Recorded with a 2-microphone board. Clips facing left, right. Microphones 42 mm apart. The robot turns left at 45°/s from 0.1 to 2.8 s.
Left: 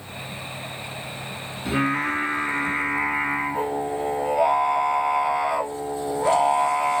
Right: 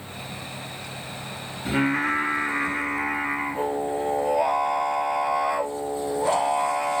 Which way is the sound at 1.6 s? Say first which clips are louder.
Even; 155° right.